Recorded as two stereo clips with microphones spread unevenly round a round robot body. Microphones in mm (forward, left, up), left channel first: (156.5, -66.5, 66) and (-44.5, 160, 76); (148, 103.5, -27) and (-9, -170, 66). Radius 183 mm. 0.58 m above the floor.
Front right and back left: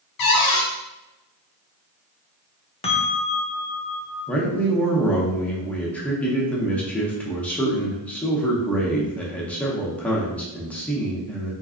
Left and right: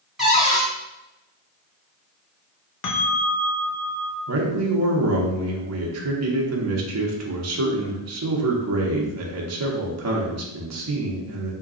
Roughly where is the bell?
Ahead left.